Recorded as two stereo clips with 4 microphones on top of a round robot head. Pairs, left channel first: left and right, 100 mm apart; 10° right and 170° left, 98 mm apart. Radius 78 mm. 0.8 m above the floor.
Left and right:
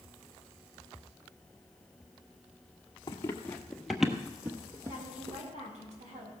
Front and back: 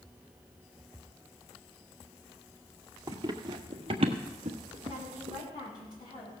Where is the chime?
I don't hear a chime.